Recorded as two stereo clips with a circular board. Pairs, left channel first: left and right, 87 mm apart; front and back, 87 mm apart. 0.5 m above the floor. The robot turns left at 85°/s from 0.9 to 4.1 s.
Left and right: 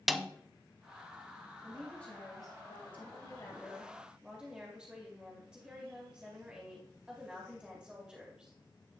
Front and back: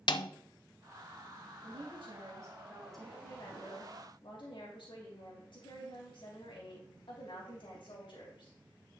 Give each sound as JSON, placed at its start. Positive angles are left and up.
{"t": 0.1, "sound": "a snare drum", "azimuth_deg": 0, "distance_m": 0.5}
{"t": 1.6, "sound": "a woman speaking", "azimuth_deg": -165, "distance_m": 3.0}